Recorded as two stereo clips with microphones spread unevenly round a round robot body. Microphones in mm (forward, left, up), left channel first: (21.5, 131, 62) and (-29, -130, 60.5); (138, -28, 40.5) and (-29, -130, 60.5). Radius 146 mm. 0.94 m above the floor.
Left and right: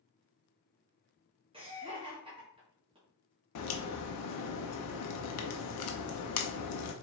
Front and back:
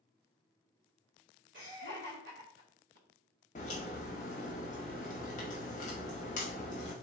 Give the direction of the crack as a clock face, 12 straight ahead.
9 o'clock.